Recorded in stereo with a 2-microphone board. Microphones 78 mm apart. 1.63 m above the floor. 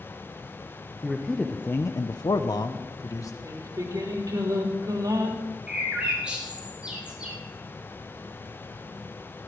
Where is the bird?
15° right (ahead or behind), 4 m.